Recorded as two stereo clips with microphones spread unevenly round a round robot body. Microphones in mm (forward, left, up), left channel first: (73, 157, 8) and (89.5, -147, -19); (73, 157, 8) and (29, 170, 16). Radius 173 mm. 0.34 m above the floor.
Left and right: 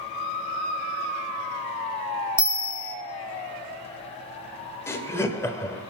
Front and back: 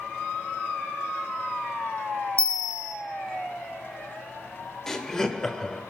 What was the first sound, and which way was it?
A bell, 10° right.